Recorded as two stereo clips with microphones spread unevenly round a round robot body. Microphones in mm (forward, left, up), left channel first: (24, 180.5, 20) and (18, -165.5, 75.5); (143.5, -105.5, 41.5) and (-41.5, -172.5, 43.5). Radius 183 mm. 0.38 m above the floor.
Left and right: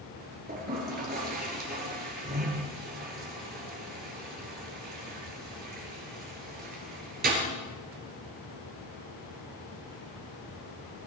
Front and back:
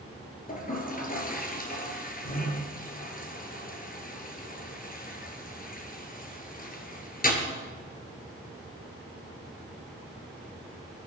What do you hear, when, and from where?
0.5 s a toilet flushing: 25° right, 2.5 m